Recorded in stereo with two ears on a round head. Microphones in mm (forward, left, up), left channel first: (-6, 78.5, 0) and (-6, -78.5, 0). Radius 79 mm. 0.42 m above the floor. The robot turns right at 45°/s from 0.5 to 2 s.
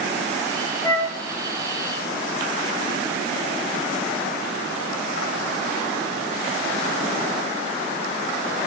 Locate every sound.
0.8 s a flute: 20° left (ahead or behind), 4 m; by 1.2 s 5° left (ahead or behind), 4 m